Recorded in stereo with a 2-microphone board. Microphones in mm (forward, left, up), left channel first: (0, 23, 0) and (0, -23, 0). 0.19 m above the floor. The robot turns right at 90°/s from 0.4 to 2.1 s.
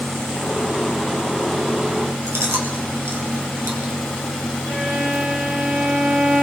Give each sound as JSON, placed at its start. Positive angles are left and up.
{"t": 2.3, "sound": "chewing", "side_deg": -70, "distance_m": 2.5}
{"t": 4.7, "sound": "a violin", "side_deg": -65, "distance_m": 3.5}